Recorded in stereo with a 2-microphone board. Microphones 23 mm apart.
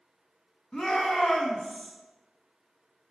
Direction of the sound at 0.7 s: 20° left (ahead or behind).